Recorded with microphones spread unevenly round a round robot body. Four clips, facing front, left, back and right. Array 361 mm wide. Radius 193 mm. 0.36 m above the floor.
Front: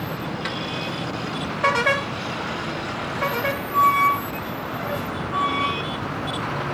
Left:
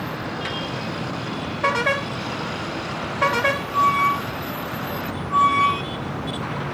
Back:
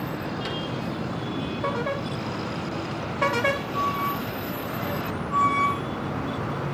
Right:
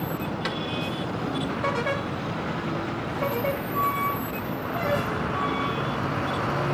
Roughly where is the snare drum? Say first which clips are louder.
Even, front 2 dB; behind right.